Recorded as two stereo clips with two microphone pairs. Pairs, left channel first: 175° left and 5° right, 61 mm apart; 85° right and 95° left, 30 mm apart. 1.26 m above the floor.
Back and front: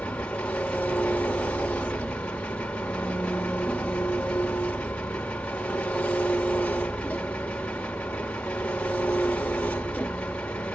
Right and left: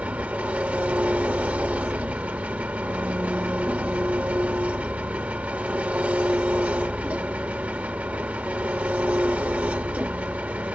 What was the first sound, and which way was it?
An engine running, 105° left.